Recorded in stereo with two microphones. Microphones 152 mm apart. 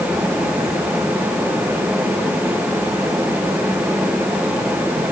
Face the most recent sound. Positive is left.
No sound to turn to.